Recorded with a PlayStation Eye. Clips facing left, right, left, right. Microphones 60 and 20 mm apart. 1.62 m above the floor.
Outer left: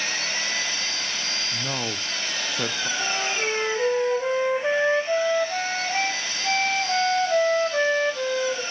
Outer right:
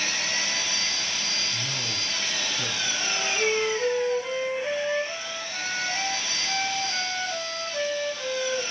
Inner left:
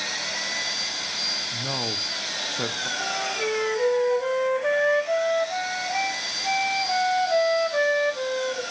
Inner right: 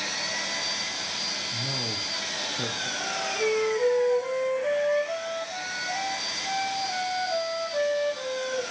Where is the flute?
60° left (ahead or behind), 2.5 m.